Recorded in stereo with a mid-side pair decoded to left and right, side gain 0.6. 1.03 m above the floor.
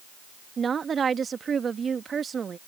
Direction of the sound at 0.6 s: 30° right.